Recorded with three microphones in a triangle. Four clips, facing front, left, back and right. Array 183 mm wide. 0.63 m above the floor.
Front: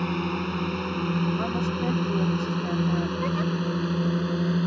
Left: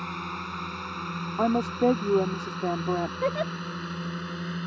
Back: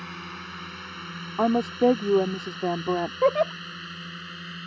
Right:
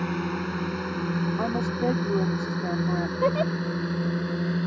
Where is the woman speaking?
160° left.